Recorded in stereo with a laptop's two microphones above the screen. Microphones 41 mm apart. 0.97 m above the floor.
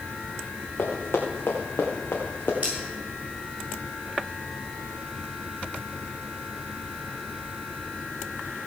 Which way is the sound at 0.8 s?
70° left (ahead or behind).